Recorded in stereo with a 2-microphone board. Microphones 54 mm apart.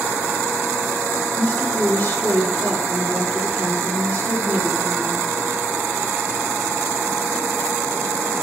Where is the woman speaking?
50° left (ahead or behind), 6 m.